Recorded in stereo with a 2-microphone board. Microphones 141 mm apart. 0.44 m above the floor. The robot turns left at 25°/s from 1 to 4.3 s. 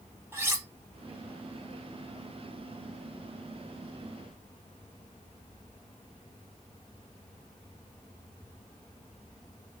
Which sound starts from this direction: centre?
Cutlery clinking, at 0.3 s.